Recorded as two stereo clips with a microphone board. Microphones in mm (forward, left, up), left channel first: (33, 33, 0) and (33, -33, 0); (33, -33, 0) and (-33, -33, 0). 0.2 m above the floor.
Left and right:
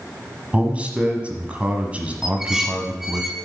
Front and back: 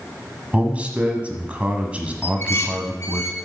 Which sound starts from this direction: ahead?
Dishes clattering, at 2.2 s.